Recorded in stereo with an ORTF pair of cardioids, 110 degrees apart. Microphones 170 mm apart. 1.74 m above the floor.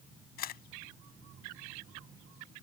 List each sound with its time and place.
0.4 s a camera shutter: 60° left